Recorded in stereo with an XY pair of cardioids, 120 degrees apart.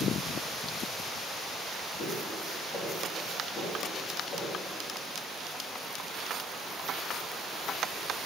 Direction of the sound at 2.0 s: 55° left.